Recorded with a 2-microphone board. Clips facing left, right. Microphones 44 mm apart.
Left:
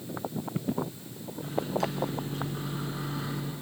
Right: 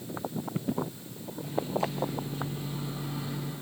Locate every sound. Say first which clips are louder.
1.4 s a microwave: left 1 dB; 70° left (ahead or behind), 3.5 m